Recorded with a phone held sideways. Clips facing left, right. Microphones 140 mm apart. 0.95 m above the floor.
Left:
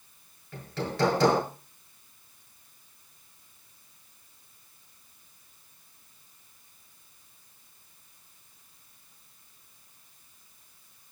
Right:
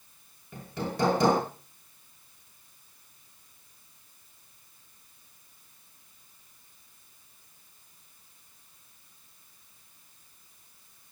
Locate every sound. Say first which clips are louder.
0.5 s hammering: left 1 dB; 15° right (ahead or behind), 6.5 m